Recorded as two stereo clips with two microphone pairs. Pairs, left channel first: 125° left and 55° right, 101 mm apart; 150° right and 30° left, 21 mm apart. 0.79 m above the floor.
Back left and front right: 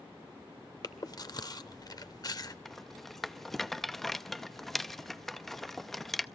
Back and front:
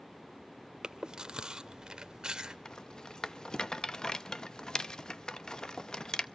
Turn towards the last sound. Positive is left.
turn(degrees=-145)